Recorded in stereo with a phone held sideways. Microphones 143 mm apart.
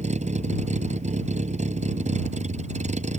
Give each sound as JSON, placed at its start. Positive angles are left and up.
{"t": 0.0, "sound": "a vehicle", "side_deg": -60}